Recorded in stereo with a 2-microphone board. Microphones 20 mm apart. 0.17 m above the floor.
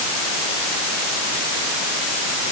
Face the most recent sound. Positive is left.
No sound to turn to.